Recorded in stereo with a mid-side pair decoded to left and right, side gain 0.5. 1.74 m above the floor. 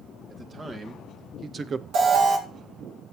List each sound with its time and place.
0.3 s a man speaking: 40° right, 2.5 m; by 1.8 s 60° right, 0.6 m
1.9 s an alarm: 70° right, 2.5 m